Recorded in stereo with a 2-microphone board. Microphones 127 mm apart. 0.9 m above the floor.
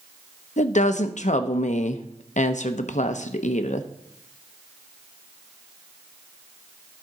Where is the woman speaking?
70° left (ahead or behind), 0.6 m.